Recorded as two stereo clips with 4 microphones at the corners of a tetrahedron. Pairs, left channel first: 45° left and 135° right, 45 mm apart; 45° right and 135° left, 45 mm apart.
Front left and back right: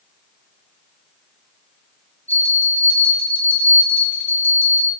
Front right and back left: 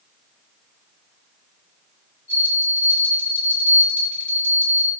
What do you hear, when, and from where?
2.3 s a bell: 10° left, 4 m